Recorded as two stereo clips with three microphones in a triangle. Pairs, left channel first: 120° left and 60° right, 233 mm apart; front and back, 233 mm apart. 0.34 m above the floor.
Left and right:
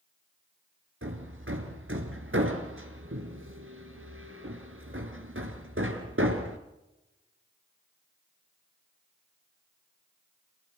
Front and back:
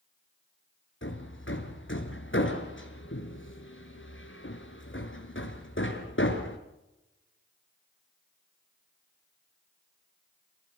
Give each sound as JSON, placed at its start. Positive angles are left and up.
{"t": 1.0, "sound": "hammering", "azimuth_deg": -30, "distance_m": 4.0}